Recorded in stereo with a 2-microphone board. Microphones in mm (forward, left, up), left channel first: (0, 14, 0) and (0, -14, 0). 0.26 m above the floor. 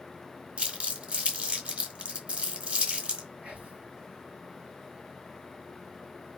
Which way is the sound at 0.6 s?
40° right (ahead or behind).